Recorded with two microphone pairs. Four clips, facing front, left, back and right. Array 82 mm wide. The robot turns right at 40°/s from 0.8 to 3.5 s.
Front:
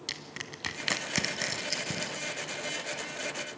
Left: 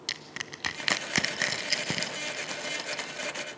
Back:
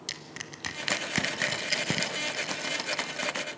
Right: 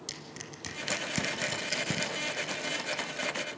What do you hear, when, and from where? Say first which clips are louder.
0.1 s crushing: left 4 dB, even; 90° left, 1.2 m; by 3.5 s 160° right, 1.2 m